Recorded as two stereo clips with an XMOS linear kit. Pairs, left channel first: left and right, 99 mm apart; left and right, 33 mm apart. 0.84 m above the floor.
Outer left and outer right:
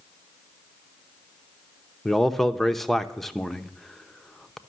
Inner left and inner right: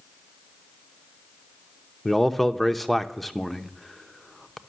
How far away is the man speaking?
About 0.7 m.